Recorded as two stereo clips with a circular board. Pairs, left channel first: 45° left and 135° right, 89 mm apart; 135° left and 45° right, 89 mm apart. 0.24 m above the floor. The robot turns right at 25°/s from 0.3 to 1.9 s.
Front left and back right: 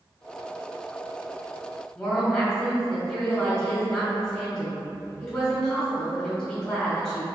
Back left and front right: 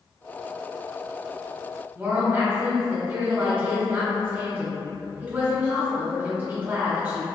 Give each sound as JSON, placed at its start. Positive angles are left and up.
{"t": 1.9, "sound": "a woman speaking", "azimuth_deg": -20, "distance_m": 1.3}